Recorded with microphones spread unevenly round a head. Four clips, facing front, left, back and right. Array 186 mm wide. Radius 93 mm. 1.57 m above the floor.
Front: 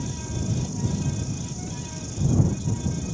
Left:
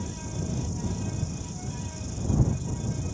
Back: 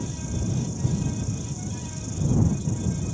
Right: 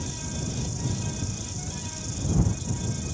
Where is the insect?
30° right.